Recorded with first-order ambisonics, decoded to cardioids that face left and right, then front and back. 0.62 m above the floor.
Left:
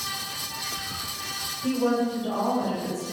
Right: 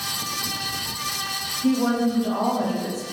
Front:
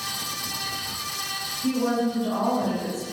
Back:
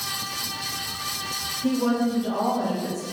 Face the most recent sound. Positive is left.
turn(degrees=-80)